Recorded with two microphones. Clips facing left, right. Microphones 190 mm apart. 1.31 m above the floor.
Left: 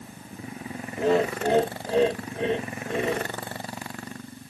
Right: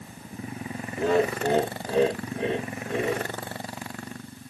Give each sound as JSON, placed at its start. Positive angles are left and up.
{"t": 1.0, "sound": "laughter", "side_deg": 25, "distance_m": 3.0}